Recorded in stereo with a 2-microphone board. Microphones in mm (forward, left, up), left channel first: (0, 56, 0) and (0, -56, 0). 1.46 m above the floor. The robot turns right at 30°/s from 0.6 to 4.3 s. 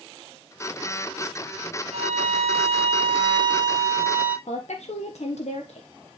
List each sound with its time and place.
1.9 s a violin: 90° right, 1.3 m; by 4.4 s 15° right, 1.3 m
4.5 s a woman speaking: 75° left (ahead or behind), 1.2 m